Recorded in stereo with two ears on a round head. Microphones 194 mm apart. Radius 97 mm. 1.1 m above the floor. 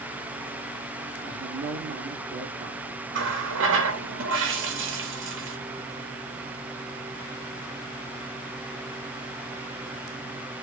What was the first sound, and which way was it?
A man speaking, 25° right (ahead or behind).